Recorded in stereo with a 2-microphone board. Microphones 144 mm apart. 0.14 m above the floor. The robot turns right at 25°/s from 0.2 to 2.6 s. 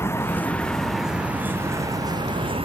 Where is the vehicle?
15° left (ahead or behind); by 2.7 s 40° right (ahead or behind).